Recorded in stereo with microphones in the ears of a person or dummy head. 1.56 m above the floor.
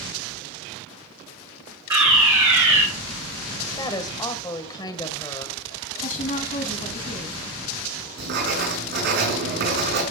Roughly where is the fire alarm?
Centre.